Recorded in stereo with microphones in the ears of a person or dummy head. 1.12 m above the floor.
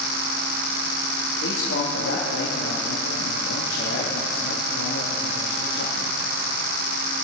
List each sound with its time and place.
1.4 s a man speaking: 70° left (ahead or behind), 2 m